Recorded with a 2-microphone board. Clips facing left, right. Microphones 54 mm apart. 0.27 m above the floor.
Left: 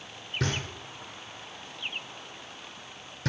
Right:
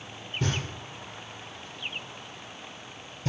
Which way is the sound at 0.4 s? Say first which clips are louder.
Right 1 dB; 70° left (ahead or behind).